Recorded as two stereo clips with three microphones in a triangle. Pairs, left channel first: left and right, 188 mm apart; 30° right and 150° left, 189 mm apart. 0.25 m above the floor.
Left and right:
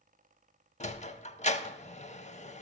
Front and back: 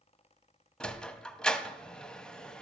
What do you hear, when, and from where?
0.8 s a sliding door: 55° left, 0.6 m